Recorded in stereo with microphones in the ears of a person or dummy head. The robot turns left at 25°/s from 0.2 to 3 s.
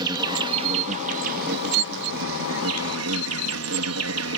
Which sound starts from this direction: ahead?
An insect, at 0.0 s.